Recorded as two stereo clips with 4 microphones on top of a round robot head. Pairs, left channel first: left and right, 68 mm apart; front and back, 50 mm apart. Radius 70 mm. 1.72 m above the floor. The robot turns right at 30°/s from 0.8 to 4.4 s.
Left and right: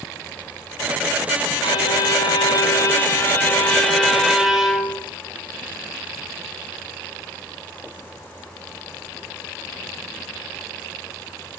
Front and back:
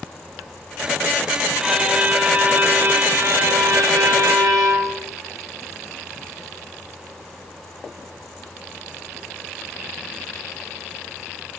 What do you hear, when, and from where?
1.6 s a violin: 100° left, 0.8 m; by 5.0 s 175° right, 0.8 m